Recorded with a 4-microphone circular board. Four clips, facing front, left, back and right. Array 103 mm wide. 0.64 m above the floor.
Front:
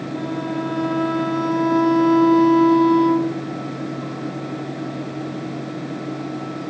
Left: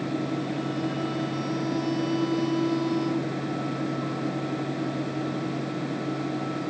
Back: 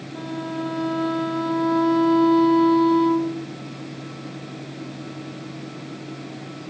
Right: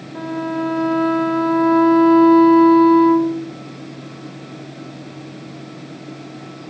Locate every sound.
0.1 s a violin: 85° right